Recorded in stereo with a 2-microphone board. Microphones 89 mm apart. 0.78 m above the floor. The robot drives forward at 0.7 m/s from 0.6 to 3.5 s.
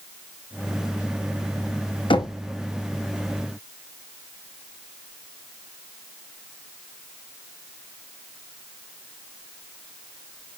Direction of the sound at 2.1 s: 65° left (ahead or behind).